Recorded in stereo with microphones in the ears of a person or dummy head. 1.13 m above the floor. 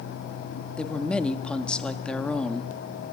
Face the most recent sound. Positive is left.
turn(degrees=10)  # may be behind; listen again after turning